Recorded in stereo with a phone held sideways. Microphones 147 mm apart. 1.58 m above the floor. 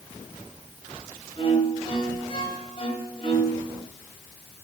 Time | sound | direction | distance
1.4 | a violin | 40° left (ahead or behind) | 2 m